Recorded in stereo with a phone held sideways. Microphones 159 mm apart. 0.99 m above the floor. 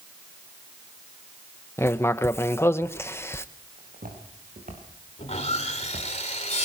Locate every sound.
1.8 s writing: 15° left (ahead or behind), 0.7 m
3.8 s footsteps: 65° right (ahead or behind), 6.5 m; by 6.1 s 75° right (ahead or behind), 5.5 m
5.2 s sawing: 45° left (ahead or behind), 3 m